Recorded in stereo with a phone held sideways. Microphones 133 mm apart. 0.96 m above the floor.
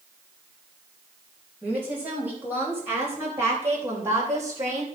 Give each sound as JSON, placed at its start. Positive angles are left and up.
{"t": 1.6, "sound": "a woman speaking", "side_deg": -10, "distance_m": 5.0}